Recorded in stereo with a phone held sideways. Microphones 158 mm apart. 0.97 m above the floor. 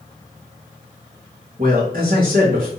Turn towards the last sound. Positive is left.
turn(degrees=-65)  # may be behind; listen again after turning